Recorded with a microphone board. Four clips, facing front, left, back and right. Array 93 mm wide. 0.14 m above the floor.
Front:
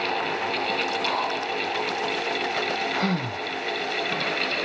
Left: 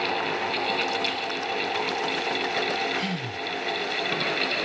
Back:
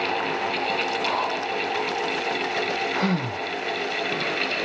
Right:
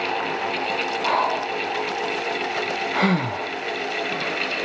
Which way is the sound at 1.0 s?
95° right.